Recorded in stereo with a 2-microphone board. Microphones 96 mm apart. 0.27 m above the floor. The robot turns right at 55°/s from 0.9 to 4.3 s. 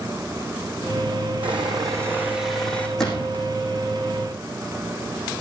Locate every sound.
1.4 s sawing: 65° right, 7 m; by 2.9 s 15° left, 7 m
3.0 s a gunshot: 5° left (ahead or behind), 5.5 m; by 3.4 s 30° left (ahead or behind), 5.5 m